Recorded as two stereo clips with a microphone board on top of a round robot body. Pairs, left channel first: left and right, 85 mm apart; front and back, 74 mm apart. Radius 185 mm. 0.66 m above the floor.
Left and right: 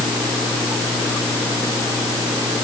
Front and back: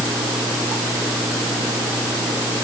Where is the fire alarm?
No fire alarm in this recording.